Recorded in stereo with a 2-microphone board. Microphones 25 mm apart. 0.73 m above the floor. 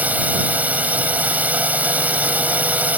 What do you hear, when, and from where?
0.0 s a drone: 75° right (ahead or behind)